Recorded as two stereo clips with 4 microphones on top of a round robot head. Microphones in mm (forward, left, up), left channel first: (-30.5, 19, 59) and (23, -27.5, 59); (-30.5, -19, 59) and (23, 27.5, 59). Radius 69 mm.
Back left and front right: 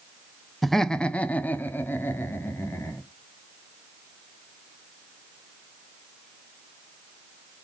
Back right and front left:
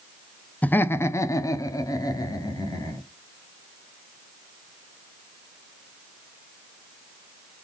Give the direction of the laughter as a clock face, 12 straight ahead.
4 o'clock.